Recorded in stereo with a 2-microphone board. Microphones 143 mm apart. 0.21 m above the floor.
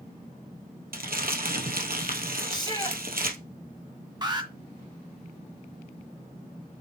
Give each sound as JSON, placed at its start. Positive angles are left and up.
{"t": 0.9, "sound": "crumpling", "side_deg": -80, "distance_m": 2.0}
{"t": 2.5, "sound": "a shout", "side_deg": 30, "distance_m": 2.5}
{"t": 4.2, "sound": "an alarm", "side_deg": -30, "distance_m": 1.8}